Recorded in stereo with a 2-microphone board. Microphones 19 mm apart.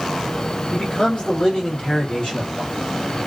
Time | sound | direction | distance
0.7 | a man speaking | 60° left (ahead or behind) | 1.3 m